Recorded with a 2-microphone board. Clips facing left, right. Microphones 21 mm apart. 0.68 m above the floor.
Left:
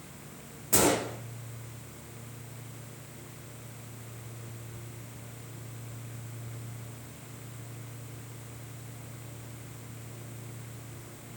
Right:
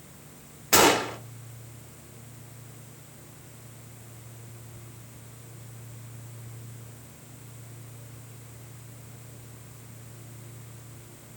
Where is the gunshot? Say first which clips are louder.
Right 6 dB; 50° right (ahead or behind), 0.9 m.